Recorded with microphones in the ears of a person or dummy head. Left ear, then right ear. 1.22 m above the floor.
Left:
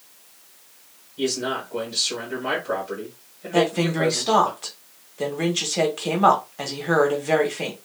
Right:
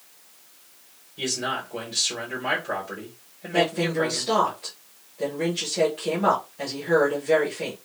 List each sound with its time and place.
1.2 s a man speaking: 40° right (ahead or behind), 1.3 m
3.5 s a woman speaking: 50° left (ahead or behind), 0.9 m